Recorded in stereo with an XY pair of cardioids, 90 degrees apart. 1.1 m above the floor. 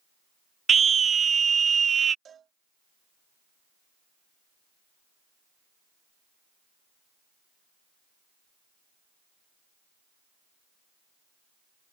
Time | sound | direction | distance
0.7 | a scream | 45° right | ?
2.2 | a cowbell | 60° right | ?